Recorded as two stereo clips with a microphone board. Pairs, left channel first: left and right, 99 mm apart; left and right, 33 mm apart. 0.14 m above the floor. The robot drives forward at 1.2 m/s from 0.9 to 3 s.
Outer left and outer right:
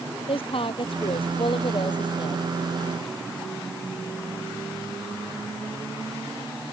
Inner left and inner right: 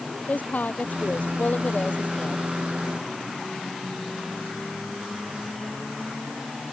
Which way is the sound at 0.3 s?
65° left (ahead or behind).